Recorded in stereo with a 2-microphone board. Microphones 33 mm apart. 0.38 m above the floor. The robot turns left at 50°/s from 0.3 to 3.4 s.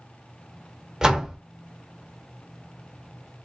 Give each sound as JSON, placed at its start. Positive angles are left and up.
{"t": 1.0, "sound": "a door slam", "side_deg": -20, "distance_m": 0.5}